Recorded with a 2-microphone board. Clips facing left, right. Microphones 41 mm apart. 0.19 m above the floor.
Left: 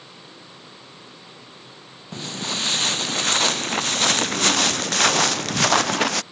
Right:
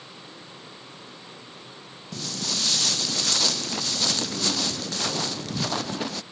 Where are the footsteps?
30° left (ahead or behind); by 6.2 s 85° left.